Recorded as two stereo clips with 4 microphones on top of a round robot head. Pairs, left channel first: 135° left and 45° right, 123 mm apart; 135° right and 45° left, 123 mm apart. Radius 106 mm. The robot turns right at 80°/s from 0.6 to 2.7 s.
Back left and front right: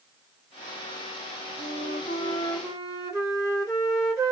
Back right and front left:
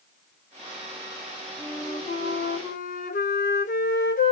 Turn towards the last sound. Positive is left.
turn(degrees=-125)